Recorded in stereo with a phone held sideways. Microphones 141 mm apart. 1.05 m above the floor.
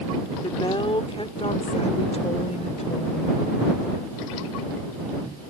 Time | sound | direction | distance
0.4 | a woman speaking | 35° left (ahead or behind) | ?